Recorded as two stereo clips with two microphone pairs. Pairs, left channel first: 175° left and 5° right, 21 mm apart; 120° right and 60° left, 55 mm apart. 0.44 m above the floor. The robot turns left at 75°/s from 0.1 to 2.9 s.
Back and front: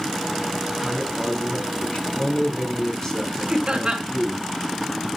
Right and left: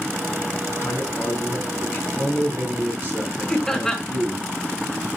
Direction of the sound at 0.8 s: 90° right.